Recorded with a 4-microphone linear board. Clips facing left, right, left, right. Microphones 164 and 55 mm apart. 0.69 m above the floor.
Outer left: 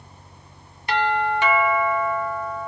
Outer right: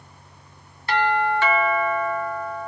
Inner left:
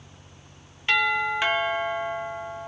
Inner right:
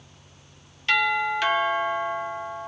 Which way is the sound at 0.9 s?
15° left (ahead or behind).